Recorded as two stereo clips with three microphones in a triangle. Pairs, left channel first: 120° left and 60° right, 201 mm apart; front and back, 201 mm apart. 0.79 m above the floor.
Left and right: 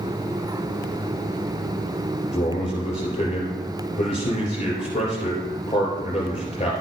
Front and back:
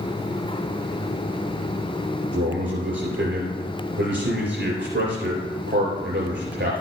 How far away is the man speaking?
About 3.5 m.